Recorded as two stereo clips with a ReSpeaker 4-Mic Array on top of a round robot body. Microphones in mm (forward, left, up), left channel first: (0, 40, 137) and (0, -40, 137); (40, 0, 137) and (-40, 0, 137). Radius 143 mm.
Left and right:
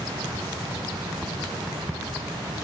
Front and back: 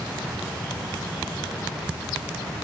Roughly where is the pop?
I don't hear a pop.